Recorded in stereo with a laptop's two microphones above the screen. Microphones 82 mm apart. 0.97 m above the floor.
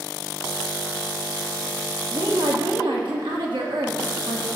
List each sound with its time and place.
2.1 s a woman speaking: 75° right (ahead or behind), 1.7 m